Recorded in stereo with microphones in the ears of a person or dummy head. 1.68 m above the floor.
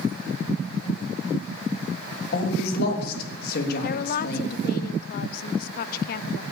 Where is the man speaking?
60° left (ahead or behind), 3 m.